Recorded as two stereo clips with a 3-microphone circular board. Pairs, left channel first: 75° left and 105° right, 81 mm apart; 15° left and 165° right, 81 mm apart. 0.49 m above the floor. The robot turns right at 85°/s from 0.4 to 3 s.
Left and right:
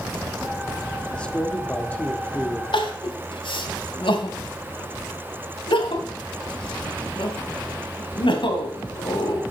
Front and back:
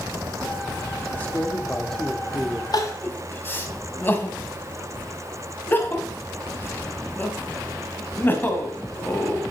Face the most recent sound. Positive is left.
turn(degrees=80)